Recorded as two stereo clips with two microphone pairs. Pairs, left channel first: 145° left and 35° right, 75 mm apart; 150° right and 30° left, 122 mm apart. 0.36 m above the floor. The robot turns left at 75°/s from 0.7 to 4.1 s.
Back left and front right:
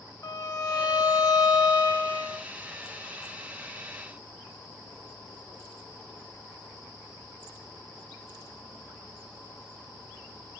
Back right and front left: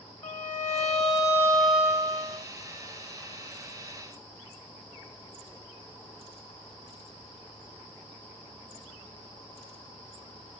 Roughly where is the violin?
Behind.